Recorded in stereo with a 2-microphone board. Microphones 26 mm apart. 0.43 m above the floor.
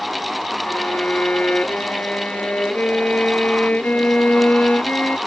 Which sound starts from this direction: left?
A violin, at 0.7 s.